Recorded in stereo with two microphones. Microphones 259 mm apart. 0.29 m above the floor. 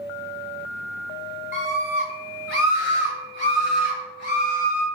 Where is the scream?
45° right (ahead or behind), 2 m; by 4.8 s 35° right (ahead or behind), 2 m.